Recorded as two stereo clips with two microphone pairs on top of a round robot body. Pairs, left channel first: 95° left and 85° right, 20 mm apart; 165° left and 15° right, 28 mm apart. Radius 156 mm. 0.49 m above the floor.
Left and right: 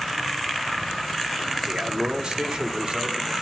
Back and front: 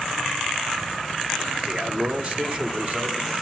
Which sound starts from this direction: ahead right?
A man speaking, at 1.7 s.